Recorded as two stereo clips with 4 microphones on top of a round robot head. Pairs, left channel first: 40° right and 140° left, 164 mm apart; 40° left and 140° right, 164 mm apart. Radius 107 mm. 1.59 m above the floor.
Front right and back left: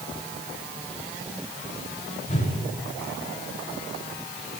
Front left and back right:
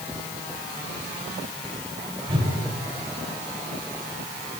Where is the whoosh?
80° right, 8.5 m.